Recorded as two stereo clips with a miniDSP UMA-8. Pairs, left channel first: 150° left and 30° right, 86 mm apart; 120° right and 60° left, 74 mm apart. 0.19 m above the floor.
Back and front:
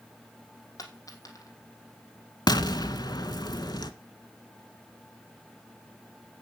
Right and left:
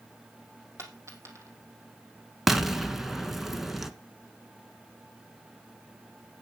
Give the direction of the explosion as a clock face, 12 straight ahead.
7 o'clock.